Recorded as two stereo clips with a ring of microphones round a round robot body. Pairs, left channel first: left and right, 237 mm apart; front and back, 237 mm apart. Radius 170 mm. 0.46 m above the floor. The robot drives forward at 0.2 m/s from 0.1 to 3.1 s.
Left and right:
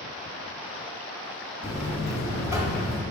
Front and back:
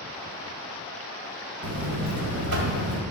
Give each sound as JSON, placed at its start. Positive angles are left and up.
{"t": 1.6, "sound": "a buzzer", "azimuth_deg": 160, "distance_m": 1.2}